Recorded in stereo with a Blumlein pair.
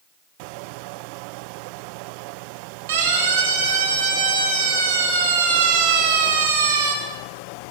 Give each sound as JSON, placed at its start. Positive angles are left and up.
{"t": 2.9, "sound": "a siren", "azimuth_deg": -55, "distance_m": 8.5}